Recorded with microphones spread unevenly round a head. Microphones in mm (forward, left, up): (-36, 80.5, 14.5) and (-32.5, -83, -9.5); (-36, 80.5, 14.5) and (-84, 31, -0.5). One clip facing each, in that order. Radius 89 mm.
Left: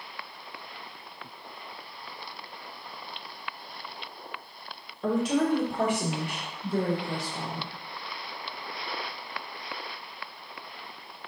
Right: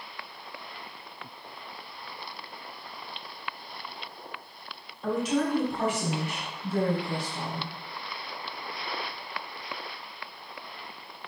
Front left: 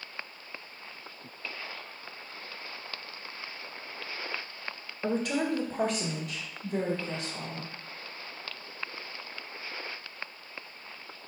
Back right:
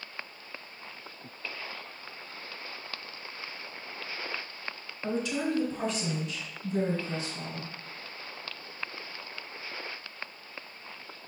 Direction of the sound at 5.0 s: 55° left.